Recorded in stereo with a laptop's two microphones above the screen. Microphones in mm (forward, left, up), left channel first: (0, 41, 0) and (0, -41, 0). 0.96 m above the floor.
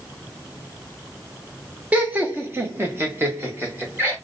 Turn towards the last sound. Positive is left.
turn(degrees=-30)  # may be behind; listen again after turning